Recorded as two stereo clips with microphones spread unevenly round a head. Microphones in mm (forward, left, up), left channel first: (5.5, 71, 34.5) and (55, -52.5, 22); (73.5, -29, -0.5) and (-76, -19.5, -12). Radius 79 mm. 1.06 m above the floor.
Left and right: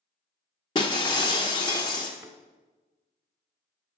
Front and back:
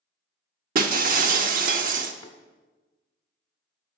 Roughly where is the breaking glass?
Behind.